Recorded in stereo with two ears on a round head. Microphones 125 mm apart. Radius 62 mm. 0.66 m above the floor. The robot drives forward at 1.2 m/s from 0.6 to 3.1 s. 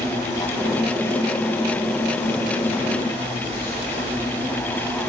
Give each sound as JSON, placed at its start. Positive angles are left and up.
{"t": 0.0, "sound": "an insect", "side_deg": 30, "distance_m": 3.5}